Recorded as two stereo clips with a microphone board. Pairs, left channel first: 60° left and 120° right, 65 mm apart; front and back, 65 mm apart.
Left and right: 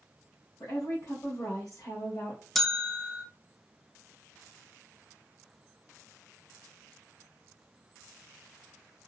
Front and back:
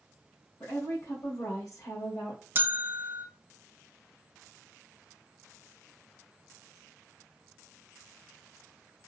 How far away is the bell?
About 0.5 m.